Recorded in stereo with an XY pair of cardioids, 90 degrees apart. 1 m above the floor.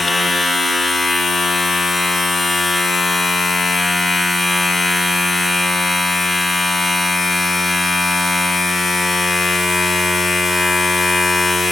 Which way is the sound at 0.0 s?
30° left.